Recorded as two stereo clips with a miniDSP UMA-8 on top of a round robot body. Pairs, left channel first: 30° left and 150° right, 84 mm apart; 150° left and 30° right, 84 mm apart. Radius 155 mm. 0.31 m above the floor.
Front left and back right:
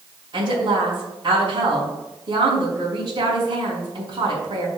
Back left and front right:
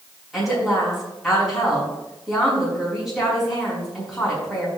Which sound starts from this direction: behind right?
A woman speaking, at 0.3 s.